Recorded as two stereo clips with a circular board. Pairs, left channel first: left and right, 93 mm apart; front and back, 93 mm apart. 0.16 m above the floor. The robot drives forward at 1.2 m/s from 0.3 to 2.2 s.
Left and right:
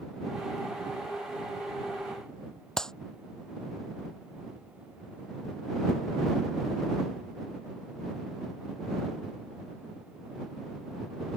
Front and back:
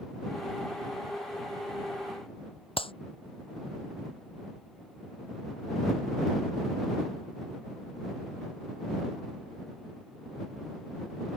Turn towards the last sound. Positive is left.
turn(degrees=5)